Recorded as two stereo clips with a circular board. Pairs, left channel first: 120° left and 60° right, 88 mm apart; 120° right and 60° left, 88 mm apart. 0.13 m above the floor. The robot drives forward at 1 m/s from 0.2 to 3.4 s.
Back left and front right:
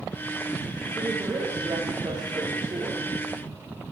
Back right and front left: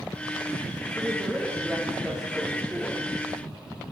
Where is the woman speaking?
20° right, 9 m; by 3.0 s 25° right, 7 m.